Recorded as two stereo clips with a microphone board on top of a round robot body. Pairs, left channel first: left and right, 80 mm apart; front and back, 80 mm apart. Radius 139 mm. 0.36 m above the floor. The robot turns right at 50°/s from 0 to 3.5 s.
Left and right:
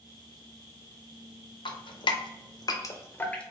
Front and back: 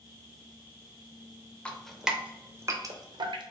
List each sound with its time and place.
1.6 s dripping: 75° left, 0.7 m; by 3.4 s 165° left, 0.7 m